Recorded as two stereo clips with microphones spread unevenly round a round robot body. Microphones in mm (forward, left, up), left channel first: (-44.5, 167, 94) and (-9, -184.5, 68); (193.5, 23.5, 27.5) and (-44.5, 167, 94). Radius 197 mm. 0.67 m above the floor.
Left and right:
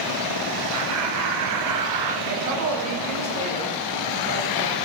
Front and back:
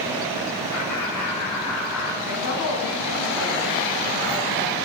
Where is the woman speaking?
30° right, 7 m.